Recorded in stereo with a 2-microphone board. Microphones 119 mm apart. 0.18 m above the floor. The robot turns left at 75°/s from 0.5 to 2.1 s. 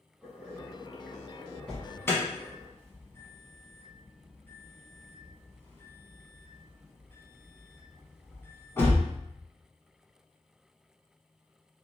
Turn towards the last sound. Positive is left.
turn(degrees=20)  # may be behind; listen again after turning